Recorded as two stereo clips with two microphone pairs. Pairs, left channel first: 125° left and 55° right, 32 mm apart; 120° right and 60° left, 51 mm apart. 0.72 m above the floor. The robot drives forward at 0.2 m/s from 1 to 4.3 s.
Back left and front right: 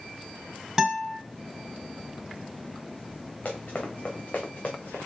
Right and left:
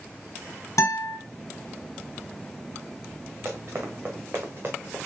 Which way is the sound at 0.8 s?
125° right.